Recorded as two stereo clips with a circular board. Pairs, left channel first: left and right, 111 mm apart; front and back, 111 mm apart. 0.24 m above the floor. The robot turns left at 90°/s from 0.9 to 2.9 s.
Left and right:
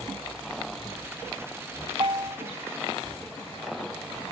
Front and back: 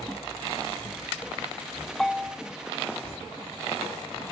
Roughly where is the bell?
Right.